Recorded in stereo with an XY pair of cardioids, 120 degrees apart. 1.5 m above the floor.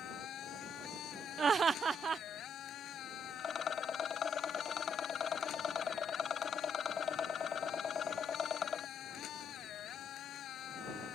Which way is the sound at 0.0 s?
60° left.